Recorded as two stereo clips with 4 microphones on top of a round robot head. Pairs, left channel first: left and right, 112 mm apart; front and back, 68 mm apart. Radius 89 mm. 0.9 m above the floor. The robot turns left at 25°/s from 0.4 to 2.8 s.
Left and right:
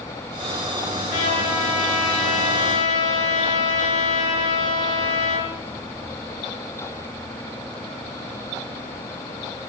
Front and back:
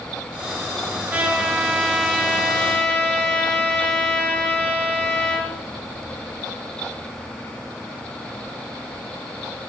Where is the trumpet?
110° left, 6 m; by 5.5 s 70° left, 6 m.